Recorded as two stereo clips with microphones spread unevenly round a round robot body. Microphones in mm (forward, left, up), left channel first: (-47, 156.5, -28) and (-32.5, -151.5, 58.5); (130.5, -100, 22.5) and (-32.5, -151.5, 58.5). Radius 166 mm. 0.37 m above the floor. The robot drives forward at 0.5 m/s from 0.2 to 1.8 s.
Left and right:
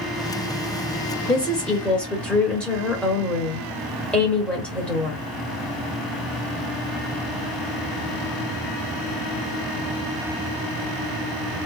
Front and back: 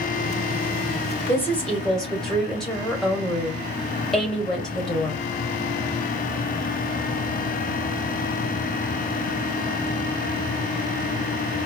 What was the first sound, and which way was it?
A woman speaking, 40° left.